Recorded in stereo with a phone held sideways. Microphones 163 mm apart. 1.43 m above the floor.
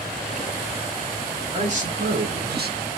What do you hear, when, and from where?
1.5 s a man speaking: 45° right (ahead or behind), 1.2 m; by 2.9 s 60° right (ahead or behind), 0.7 m